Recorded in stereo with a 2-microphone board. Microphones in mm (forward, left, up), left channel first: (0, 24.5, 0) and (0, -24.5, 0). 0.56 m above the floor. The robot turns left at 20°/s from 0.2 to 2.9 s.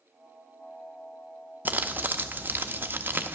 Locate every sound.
1.6 s crumpling: 35° right (ahead or behind), 0.6 m; by 3.4 s 40° right (ahead or behind), 0.6 m